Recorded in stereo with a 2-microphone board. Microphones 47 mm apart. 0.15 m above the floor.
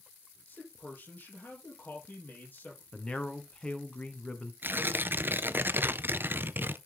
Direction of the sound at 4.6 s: 45° right (ahead or behind).